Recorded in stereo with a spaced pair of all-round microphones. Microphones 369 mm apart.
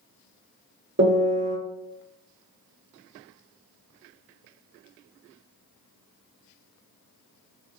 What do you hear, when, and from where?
1.0 s a piano: 35° right (ahead or behind), 1.2 m